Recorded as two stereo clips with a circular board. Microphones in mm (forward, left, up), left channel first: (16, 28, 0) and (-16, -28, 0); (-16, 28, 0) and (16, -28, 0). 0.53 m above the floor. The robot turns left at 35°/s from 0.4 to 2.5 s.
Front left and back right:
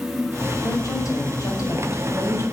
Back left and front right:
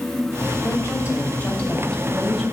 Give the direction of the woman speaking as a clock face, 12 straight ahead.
9 o'clock.